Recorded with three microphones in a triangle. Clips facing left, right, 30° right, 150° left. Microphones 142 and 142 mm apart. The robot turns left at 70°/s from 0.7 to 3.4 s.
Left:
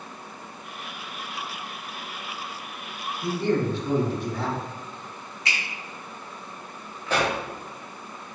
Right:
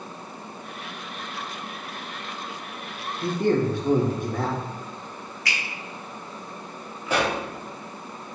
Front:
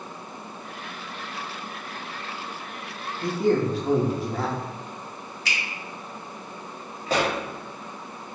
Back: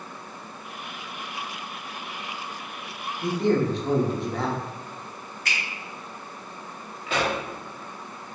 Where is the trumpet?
I don't hear a trumpet.